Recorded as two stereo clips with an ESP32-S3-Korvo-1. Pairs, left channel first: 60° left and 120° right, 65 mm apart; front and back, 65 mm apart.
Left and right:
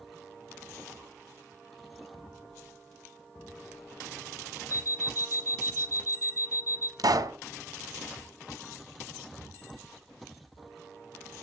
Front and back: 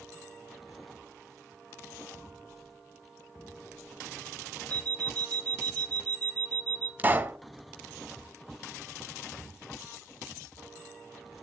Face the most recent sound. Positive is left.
turn(degrees=-115)